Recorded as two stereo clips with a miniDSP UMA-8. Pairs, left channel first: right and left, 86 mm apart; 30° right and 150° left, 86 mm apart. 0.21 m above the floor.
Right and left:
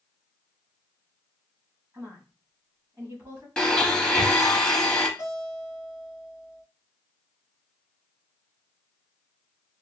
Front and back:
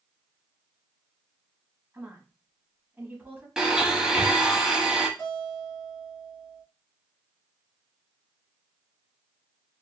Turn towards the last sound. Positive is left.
turn(degrees=25)